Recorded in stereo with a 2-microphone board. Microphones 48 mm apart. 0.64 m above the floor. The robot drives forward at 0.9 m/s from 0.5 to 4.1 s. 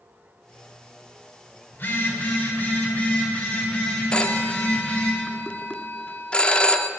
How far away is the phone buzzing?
About 2.5 m.